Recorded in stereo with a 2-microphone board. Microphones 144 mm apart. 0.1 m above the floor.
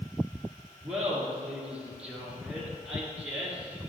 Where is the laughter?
10° right (ahead or behind), 1.8 m.